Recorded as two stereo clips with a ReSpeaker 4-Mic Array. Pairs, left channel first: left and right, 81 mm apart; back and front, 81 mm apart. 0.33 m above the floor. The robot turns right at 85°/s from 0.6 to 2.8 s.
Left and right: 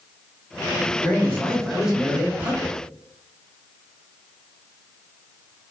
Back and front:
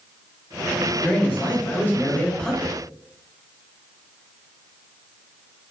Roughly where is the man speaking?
Behind left.